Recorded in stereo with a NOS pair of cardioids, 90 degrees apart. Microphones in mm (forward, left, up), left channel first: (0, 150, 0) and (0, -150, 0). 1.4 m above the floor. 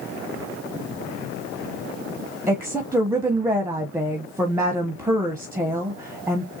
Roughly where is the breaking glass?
I don't hear breaking glass.